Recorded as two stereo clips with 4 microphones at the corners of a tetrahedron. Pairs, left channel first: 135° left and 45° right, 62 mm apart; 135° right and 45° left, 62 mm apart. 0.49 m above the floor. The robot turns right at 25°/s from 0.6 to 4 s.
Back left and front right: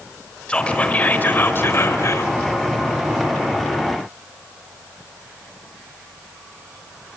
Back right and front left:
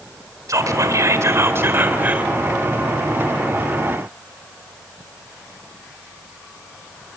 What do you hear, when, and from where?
0.5 s whispering: 65° left, 1.5 m; by 2.3 s 110° left, 1.5 m